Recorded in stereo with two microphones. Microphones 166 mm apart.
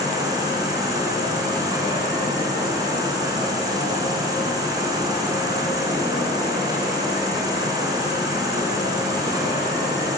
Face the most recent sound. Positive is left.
turn(degrees=-25)  # may be behind; listen again after turning